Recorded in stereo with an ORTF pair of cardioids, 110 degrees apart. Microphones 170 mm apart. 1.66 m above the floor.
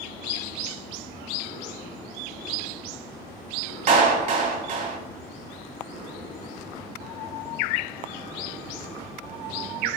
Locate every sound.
3.9 s a clap: 45° right, 0.8 m